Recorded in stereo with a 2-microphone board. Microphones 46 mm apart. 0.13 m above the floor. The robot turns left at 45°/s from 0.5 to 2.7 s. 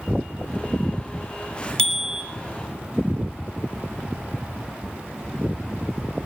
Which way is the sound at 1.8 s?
15° left (ahead or behind).